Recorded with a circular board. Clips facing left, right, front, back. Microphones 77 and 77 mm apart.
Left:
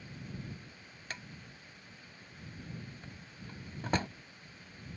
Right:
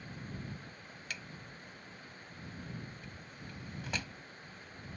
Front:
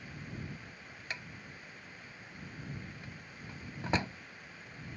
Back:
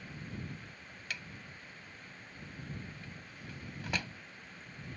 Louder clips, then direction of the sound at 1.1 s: Left 1 dB, front 1 dB; 55° left.